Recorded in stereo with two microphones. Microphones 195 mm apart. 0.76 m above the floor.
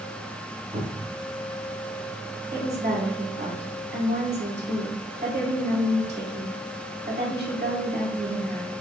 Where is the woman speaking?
60° right (ahead or behind), 1.6 m.